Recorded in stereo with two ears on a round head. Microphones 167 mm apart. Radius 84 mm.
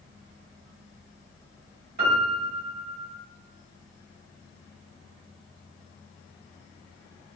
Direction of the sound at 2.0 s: 50° right (ahead or behind).